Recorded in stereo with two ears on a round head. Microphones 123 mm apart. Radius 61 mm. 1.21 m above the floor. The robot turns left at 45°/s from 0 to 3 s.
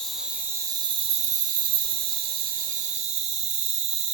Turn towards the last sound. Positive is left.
turn(degrees=-130)